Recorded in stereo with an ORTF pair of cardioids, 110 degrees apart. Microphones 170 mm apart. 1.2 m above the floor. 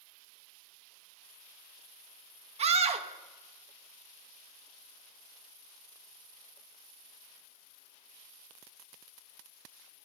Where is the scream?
40° right, 1.3 m.